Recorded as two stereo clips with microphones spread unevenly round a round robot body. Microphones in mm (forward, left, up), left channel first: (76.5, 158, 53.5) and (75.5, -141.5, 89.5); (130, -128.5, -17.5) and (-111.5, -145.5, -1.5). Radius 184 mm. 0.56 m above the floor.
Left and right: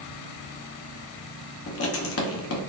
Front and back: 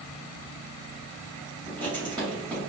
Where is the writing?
105° left, 0.8 m.